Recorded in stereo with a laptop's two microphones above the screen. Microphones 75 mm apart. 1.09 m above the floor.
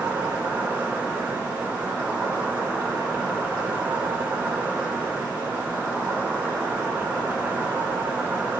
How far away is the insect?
About 4.5 m.